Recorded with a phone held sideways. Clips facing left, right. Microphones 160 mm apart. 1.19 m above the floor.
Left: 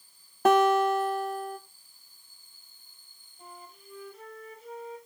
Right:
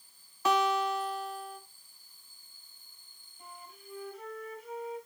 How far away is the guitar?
About 1.1 m.